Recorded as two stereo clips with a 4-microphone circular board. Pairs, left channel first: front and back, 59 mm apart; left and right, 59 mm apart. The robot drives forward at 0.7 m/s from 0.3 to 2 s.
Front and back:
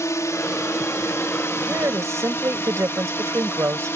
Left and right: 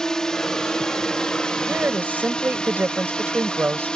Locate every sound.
0.0 s a drone: 15° left; by 4.0 s 20° left
1.7 s a woman speaking: 145° right